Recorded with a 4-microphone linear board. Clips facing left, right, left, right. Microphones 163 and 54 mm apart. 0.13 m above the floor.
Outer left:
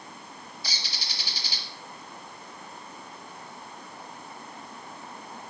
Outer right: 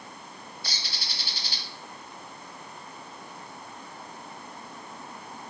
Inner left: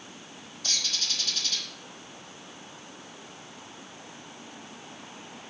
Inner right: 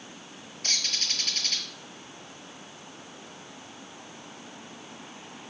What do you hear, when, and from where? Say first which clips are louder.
0.6 s a bird: outer left 1 dB, inner right 1 dB; 55° right (ahead or behind), 2.5 m